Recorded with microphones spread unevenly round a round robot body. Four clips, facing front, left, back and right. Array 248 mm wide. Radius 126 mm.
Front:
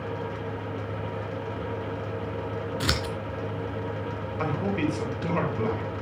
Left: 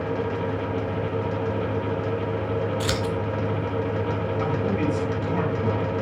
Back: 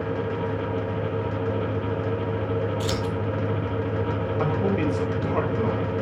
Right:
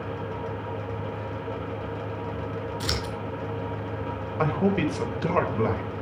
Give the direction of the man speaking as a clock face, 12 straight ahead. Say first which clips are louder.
Right 3 dB, back 2 dB; 3 o'clock.